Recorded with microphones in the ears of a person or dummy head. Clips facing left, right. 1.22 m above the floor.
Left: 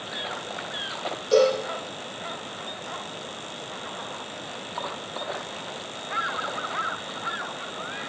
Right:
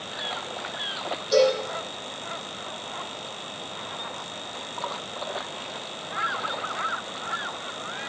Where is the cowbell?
45° left (ahead or behind), 7.5 m.